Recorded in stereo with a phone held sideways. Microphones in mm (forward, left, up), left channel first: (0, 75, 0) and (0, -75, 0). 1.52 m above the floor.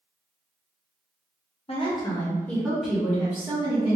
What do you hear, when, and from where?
1.7 s a woman speaking: 40° left (ahead or behind), 0.9 m; by 4.0 s 20° right (ahead or behind), 1.8 m